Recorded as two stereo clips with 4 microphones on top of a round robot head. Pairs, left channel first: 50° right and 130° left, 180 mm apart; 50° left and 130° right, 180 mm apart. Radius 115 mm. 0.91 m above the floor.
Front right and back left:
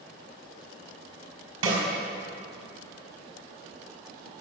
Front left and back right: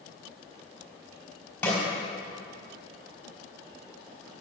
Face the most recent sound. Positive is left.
turn(degrees=130)